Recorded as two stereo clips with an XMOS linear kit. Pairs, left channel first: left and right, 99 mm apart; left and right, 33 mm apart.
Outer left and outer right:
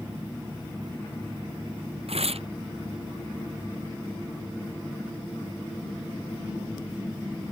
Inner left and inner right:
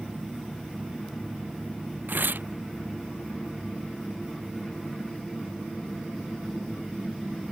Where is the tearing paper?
85° right.